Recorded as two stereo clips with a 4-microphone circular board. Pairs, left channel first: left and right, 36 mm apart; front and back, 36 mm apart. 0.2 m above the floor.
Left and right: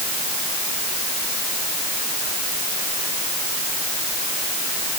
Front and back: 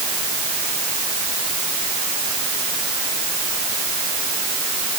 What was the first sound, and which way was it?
Only background noise.